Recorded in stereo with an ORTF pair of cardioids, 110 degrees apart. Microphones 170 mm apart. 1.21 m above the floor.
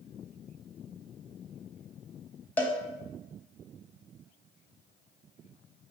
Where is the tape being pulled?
No tape being pulled in this recording.